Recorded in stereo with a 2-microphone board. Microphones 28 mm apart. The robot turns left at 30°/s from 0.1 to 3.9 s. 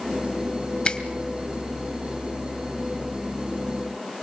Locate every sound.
0.8 s a finger snap: 40° left (ahead or behind), 1.7 m